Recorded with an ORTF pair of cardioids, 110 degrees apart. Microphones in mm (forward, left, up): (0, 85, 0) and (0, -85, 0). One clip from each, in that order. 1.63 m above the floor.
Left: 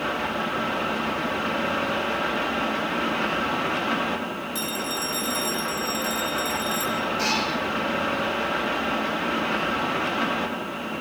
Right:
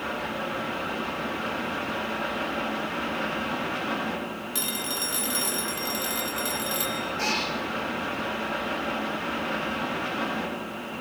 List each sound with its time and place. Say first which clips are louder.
0.0 s a fan: left 4 dB; 25° left, 3 m
4.5 s a phone ringing: left 1 dB; 35° right, 2.5 m
7.2 s a cat meowing: left 1 dB; 15° left, 7 m